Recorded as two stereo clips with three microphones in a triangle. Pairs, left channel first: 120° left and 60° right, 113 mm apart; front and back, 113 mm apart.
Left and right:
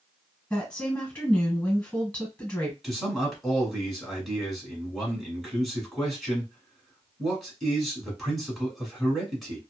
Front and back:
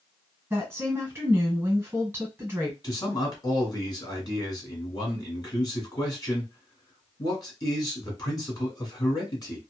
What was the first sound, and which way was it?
A woman speaking, straight behind.